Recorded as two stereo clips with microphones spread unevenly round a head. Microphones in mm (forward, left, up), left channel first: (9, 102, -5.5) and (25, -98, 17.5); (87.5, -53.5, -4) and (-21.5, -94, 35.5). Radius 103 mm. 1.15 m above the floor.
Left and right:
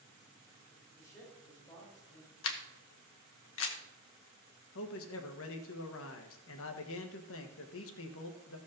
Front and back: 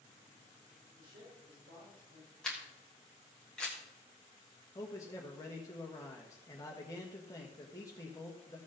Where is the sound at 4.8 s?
85° left, 1.4 m.